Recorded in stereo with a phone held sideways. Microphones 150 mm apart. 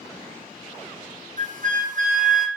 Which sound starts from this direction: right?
A flute, at 1.4 s.